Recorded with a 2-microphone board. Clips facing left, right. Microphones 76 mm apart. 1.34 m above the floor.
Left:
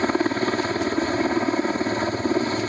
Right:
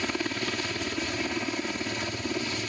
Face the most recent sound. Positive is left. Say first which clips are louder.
# left 9 dB
turn(degrees=40)  # may be behind; listen again after turning